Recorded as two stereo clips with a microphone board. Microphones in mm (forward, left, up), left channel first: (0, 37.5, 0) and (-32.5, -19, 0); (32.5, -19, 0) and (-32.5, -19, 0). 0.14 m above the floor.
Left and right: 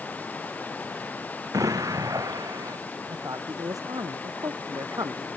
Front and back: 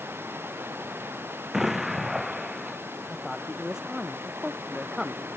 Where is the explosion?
95° right.